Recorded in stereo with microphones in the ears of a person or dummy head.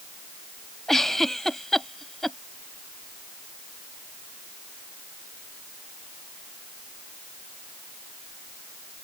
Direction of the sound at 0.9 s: Centre (ahead or behind).